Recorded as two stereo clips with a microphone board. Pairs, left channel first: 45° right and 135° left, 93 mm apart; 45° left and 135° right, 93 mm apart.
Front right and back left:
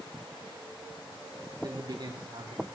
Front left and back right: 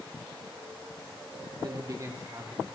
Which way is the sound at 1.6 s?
Straight behind.